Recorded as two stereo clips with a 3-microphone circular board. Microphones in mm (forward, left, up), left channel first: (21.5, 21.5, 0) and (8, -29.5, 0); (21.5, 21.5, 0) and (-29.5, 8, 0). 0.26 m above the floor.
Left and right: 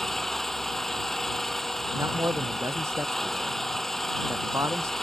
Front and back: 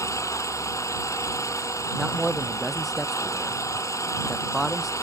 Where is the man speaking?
75° right.